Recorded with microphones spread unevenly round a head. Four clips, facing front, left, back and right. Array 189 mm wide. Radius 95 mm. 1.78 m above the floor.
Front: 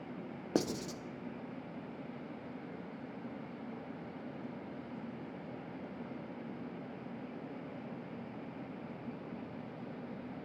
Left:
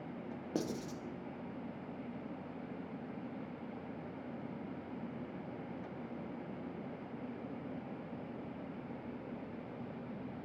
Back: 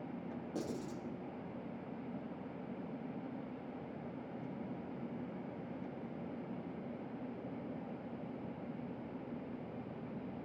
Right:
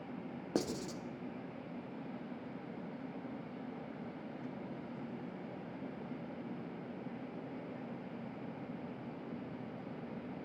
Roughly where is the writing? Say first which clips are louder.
Right 2 dB, front 9 dB; ahead.